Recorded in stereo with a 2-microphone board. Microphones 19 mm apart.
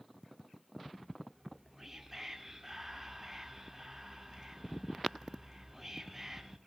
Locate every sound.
1.4 s whispering: 15° right (ahead or behind), 0.9 m